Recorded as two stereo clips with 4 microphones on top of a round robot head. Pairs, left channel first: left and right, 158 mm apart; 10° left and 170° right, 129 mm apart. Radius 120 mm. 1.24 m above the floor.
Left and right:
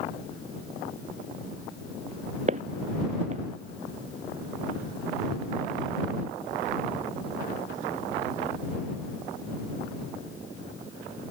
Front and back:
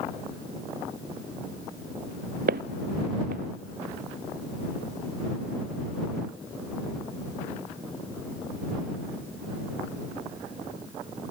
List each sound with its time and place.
2.5 s footsteps: 145° right